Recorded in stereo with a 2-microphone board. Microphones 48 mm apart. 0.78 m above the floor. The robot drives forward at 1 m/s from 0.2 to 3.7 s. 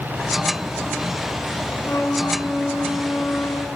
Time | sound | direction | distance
1.8 | a flute | 75° left (ahead or behind) | 2.5 m